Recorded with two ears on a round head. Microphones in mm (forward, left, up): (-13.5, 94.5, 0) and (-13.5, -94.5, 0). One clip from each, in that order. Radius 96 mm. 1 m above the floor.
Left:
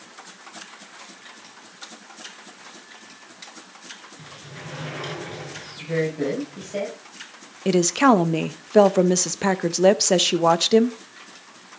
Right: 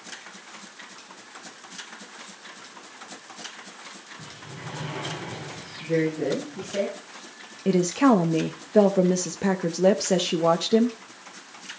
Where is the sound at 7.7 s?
45° left (ahead or behind), 1.0 m.